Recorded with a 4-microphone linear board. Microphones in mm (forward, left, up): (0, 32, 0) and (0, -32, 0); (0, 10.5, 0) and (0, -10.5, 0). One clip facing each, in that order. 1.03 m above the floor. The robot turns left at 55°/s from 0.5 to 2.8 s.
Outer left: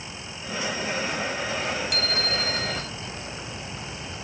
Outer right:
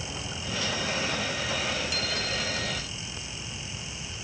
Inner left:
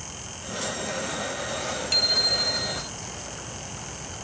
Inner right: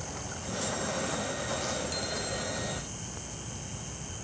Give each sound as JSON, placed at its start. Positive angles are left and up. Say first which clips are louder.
{"t": 0.0, "sound": "running water", "louder": "outer right 1 dB, inner left 1 dB", "azimuth_deg": -115}
{"t": 1.9, "sound": "a bicycle bell", "louder": "outer left 4 dB, inner left 12 dB", "azimuth_deg": 115}